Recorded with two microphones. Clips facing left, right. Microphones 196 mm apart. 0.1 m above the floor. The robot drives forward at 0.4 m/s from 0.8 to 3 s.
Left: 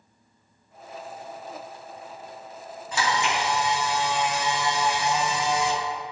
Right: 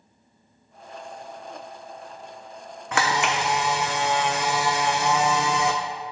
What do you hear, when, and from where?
2.9 s a camera shutter: 75° right (ahead or behind), 1.1 m